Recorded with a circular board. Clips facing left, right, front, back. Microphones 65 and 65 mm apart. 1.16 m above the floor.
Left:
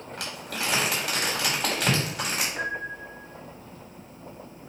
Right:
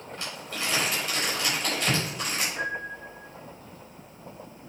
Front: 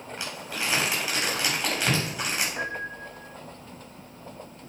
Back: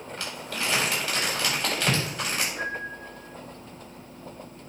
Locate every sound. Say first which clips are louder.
0.2 s crumpling: left 2 dB, even; 80° left, 4 m
2.6 s a piano: left 1 dB, even; 25° left, 1.5 m